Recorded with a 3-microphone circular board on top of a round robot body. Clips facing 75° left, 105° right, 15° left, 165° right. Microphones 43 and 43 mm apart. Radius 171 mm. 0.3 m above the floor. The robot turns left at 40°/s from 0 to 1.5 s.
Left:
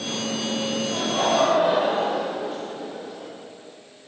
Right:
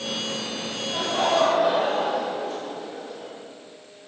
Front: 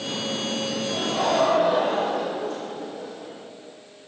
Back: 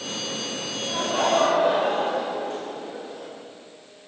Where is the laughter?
175° left, 2.5 m; by 3.3 s 150° left, 2.5 m.